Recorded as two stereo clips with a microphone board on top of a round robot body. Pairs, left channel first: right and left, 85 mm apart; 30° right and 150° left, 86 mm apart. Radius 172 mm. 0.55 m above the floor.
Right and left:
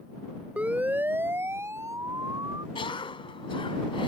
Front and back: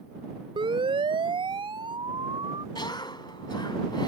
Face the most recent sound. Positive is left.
turn(degrees=-70)